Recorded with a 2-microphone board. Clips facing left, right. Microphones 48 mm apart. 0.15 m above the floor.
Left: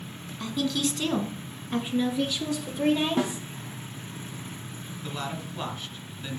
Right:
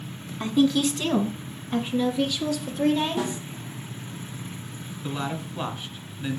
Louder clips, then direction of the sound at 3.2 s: Left 1 dB; 40° left (ahead or behind).